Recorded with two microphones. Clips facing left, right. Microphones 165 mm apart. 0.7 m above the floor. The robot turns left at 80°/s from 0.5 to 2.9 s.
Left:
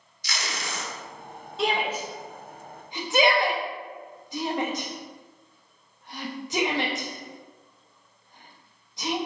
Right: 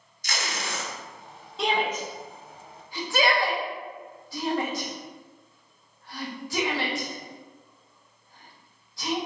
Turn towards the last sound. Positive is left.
turn(degrees=20)  # may be behind; listen again after turning